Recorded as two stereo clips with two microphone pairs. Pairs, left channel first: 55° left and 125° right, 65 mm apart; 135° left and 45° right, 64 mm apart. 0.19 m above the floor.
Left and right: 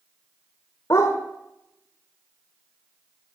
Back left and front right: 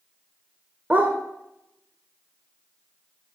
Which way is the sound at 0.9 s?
15° left.